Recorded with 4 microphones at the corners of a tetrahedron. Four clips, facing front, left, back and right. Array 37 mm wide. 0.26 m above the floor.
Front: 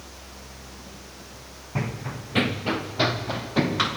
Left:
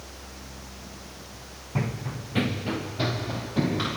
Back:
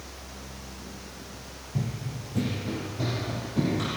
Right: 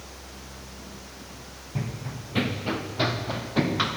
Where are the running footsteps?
25° left, 0.9 m; by 4.0 s 30° right, 3.5 m.